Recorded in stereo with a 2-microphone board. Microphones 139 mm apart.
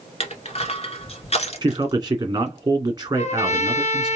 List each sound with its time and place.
0.2 s crushing: 50° left (ahead or behind), 1.1 m
1.6 s a man speaking: 30° right (ahead or behind), 1.6 m
3.1 s a trumpet: 55° left (ahead or behind), 0.9 m